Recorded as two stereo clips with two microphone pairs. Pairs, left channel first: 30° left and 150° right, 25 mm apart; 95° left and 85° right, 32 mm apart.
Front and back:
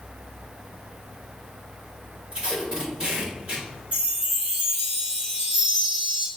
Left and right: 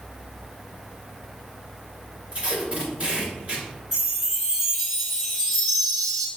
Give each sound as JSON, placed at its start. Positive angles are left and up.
{"t": 2.3, "sound": "tape being pulled", "azimuth_deg": -110, "distance_m": 1.7}
{"t": 3.9, "sound": "a chime", "azimuth_deg": -165, "distance_m": 1.8}